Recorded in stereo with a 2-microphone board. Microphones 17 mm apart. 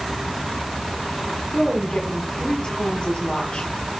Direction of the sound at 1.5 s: 80° left.